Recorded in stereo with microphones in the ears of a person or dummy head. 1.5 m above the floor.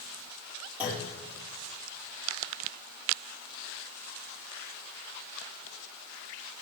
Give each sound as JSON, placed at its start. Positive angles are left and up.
{"t": 0.8, "sound": "a clunk", "side_deg": -5, "distance_m": 4.5}